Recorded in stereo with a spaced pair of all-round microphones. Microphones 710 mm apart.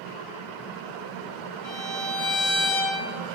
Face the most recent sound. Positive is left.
turn(degrees=45)  # may be behind; listen again after turning